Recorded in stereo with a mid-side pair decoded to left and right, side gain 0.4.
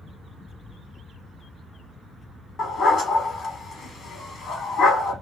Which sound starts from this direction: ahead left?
A dog barking, at 2.6 s.